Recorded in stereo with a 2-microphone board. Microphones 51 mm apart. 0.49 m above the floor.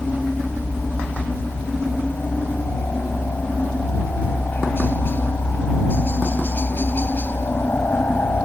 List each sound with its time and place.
0.0 s a helicopter: 40° left (ahead or behind)